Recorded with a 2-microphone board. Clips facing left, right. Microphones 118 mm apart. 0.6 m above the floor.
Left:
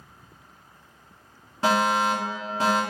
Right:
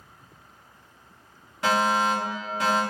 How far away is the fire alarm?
About 1.6 m.